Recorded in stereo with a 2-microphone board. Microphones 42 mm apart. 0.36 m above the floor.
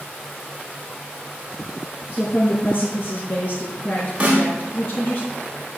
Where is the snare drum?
30° right (ahead or behind), 3.5 m.